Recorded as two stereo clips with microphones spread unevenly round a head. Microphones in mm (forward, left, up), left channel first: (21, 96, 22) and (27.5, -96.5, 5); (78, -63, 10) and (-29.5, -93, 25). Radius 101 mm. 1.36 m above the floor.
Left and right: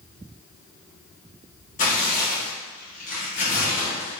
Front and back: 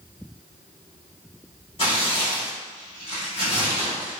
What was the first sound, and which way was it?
Tearing paper, 65° left.